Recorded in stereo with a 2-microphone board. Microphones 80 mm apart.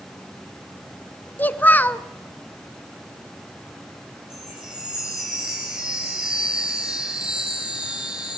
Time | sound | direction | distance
1.4 | a child speaking | 20° left (ahead or behind) | 0.8 m
4.3 | a chime | 10° right (ahead or behind) | 5.5 m